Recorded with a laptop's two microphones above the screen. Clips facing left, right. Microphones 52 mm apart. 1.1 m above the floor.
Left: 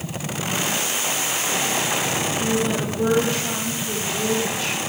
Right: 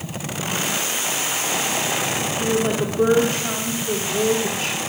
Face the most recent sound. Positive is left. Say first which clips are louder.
# right 3 dB
turn(degrees=-50)  # may be behind; listen again after turning